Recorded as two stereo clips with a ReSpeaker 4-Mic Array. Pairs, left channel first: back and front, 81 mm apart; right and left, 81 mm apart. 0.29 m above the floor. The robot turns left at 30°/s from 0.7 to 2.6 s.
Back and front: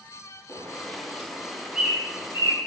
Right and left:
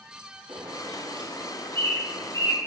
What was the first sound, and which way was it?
A bird, 120° left.